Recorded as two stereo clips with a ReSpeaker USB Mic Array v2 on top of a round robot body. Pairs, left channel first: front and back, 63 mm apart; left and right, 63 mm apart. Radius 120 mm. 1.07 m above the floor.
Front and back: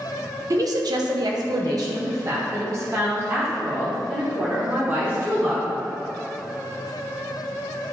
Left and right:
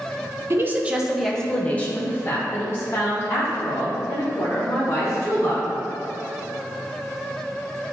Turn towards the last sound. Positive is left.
turn(degrees=125)